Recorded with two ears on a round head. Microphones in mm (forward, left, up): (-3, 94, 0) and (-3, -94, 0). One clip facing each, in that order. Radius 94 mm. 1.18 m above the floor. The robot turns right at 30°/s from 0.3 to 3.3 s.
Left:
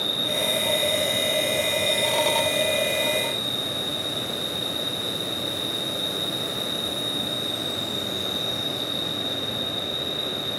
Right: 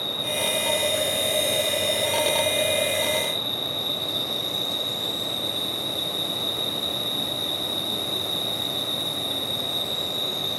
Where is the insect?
160° left, 2.5 m; by 10.6 s 110° right, 2.5 m.